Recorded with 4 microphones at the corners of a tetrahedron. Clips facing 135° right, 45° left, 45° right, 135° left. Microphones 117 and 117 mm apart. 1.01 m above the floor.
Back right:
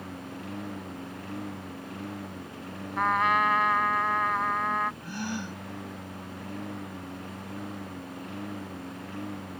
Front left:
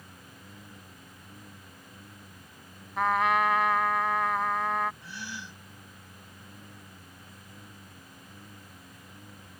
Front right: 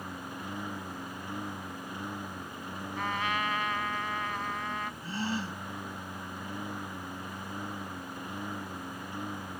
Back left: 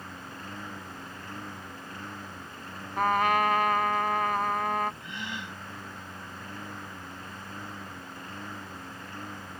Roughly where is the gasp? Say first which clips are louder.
Back right 8 dB, front right 5 dB; right.